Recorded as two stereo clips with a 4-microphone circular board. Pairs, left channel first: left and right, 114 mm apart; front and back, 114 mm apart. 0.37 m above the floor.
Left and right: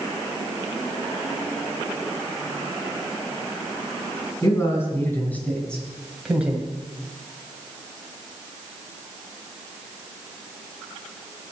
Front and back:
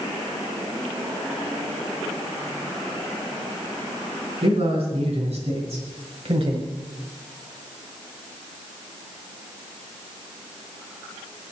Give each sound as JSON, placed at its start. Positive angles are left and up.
{"t": 4.4, "sound": "a man speaking", "azimuth_deg": 155, "distance_m": 3.0}